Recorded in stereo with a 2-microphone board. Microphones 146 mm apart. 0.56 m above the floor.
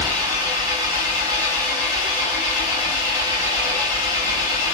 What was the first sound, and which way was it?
An engine running, 30° right (ahead or behind).